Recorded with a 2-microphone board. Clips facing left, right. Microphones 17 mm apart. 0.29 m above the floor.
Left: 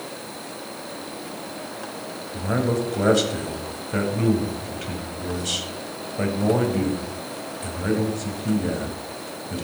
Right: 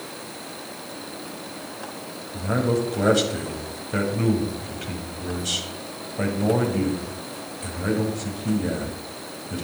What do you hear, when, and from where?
2.3 s a man speaking: 5° right (ahead or behind), 1.9 m